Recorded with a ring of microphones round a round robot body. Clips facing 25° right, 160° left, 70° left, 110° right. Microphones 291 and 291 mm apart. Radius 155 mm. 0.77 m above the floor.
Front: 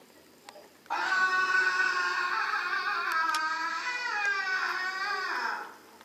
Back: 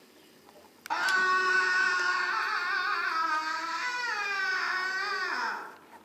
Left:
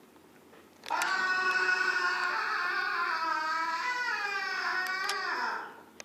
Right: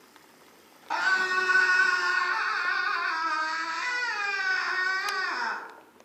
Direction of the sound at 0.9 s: 165° right.